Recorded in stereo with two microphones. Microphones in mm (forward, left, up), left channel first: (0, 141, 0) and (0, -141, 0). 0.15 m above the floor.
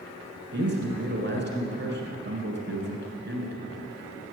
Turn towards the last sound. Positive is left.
turn(degrees=-40)  # may be behind; listen again after turning